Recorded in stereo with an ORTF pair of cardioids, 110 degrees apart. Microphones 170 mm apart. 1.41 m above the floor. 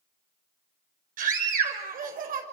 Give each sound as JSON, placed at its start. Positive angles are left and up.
{"t": 1.2, "sound": "a scream", "azimuth_deg": -55, "distance_m": 6.0}